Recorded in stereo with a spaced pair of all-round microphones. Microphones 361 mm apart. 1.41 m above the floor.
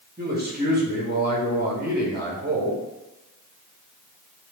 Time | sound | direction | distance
0.2 | a man speaking | 25° right (ahead or behind) | 0.9 m